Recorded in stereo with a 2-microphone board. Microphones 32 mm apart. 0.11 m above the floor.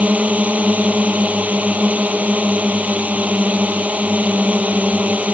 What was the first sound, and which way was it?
A drone, 50° right (ahead or behind).